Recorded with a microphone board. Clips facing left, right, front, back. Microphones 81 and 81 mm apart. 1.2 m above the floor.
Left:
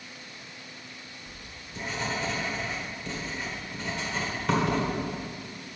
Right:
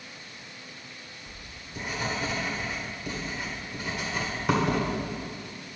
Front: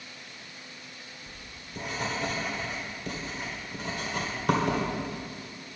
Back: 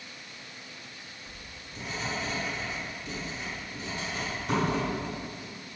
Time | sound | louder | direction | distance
1.3 | writing | even, even | 10° right | 1.6 m